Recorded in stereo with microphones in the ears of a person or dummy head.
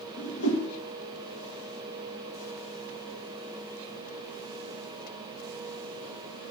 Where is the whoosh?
65° left (ahead or behind), 2 m.